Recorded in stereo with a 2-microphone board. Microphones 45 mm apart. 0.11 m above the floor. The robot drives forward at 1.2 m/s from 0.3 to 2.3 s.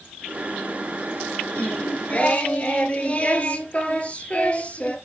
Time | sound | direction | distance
1.6 | singing | 35° left (ahead or behind) | 1.7 m